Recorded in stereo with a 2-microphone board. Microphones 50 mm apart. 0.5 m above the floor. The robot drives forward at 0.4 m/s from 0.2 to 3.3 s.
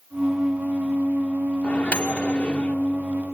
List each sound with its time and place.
1.6 s a microwave: 30° left (ahead or behind), 0.7 m; by 2.8 s 25° left (ahead or behind), 0.8 m